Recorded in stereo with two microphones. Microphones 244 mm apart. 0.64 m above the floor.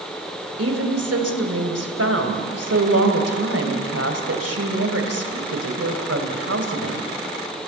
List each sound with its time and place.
0.6 s a woman speaking: 75° right (ahead or behind), 2.5 m